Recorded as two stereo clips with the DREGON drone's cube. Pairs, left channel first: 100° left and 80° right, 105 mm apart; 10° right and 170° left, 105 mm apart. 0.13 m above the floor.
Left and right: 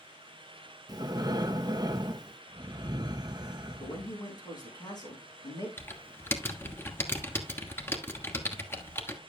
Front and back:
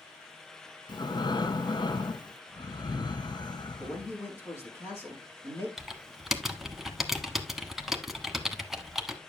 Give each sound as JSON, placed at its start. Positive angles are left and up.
{"t": 0.9, "sound": "breathing", "azimuth_deg": -45, "distance_m": 0.6}
{"t": 3.8, "sound": "a man speaking", "azimuth_deg": 55, "distance_m": 5.5}
{"t": 5.8, "sound": "typing on a keyboard", "azimuth_deg": 85, "distance_m": 1.1}